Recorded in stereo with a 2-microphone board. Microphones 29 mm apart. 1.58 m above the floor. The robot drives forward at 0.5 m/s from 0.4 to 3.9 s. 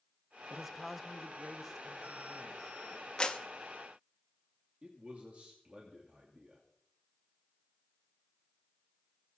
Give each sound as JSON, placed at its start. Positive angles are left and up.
{"t": 0.5, "sound": "a man speaking", "side_deg": -5, "distance_m": 0.5}
{"t": 3.2, "sound": "a clap", "side_deg": 30, "distance_m": 1.0}
{"t": 4.8, "sound": "a man speaking", "side_deg": -50, "distance_m": 2.5}